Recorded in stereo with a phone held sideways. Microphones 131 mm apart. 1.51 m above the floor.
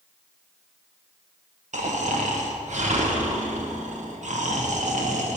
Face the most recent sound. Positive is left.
turn(degrees=-65)  # may be behind; listen again after turning